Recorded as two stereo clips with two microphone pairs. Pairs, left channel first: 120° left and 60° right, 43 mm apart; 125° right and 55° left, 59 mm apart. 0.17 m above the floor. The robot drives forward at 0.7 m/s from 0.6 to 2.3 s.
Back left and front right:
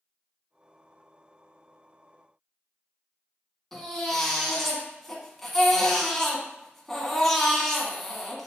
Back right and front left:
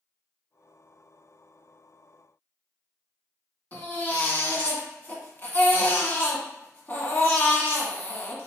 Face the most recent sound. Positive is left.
turn(degrees=-160)